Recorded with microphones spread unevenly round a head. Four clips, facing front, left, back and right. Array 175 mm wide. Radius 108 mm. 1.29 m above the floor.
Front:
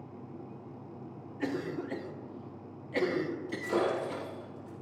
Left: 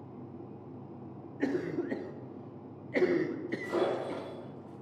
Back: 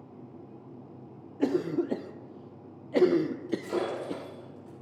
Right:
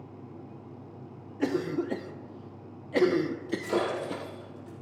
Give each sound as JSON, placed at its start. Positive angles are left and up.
{"t": 1.4, "sound": "a cough", "azimuth_deg": -155, "distance_m": 0.5}
{"t": 3.5, "sound": "breaking glass", "azimuth_deg": -150, "distance_m": 4.0}